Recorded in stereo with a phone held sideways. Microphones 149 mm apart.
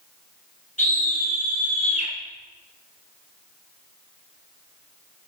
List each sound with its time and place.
0.8 s a scream: 55° left (ahead or behind), 6 m; by 2.1 s 45° left (ahead or behind), 4 m